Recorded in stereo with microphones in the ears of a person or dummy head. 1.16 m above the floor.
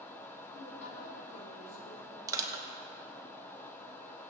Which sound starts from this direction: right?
Crushing, at 2.3 s.